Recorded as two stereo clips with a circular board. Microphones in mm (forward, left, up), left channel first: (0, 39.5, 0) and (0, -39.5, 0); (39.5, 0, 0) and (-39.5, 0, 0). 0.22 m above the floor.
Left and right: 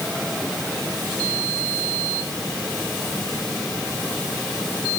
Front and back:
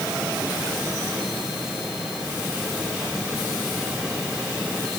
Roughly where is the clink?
No clink in this recording.